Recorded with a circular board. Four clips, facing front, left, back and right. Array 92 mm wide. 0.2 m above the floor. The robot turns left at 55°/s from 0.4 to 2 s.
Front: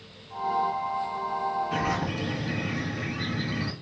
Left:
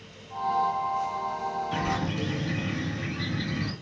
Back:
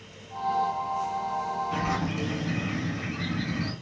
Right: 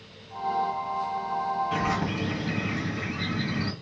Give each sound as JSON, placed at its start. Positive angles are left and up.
{"t": 1.7, "sound": "a bird", "azimuth_deg": -75, "distance_m": 1.9}